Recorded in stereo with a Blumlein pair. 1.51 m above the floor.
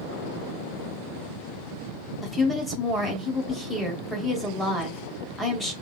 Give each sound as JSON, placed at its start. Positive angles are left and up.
{"t": 2.2, "sound": "a woman speaking", "azimuth_deg": -5, "distance_m": 1.1}